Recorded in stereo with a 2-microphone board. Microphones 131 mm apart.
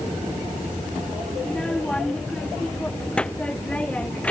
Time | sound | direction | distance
1.4 | a child speaking | 5° left (ahead or behind) | ?